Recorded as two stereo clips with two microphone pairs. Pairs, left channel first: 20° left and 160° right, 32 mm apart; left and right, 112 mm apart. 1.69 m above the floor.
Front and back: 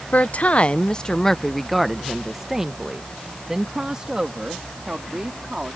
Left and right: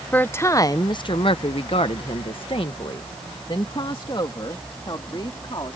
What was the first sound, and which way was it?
A woman speaking, 20° left.